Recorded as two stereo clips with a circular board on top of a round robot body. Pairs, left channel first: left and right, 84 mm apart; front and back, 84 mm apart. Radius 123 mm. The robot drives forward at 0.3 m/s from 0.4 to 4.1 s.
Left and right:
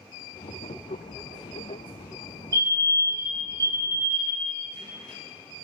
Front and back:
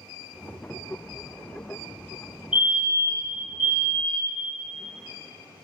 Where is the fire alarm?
110° right, 1.8 m; by 4.5 s 125° right, 2.0 m.